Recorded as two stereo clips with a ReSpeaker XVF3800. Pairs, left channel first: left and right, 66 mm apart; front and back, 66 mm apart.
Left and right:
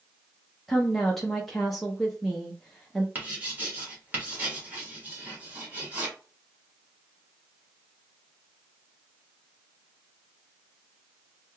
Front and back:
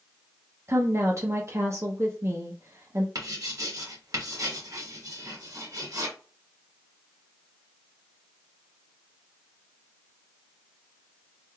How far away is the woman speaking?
About 0.6 m.